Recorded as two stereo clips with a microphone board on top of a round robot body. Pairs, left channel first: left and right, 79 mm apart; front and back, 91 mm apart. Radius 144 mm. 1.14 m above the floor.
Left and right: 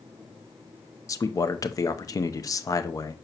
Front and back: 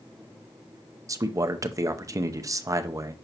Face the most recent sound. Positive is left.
turn(degrees=130)